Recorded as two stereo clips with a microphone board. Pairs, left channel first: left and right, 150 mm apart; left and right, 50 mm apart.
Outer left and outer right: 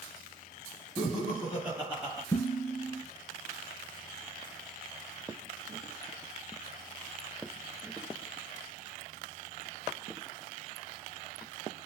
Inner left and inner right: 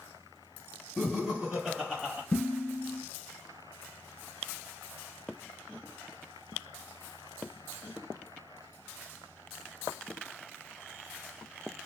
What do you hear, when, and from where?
1.0 s laughter: centre (ahead or behind), 2.5 m; by 2.2 s 20° right (ahead or behind), 2.5 m
2.3 s dishes clattering: 15° left (ahead or behind), 1.3 m